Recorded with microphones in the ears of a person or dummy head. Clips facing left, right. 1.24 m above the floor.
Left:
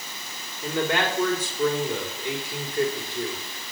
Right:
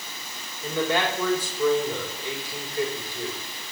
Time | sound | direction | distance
0.6 | a man speaking | 50° left (ahead or behind) | 5 m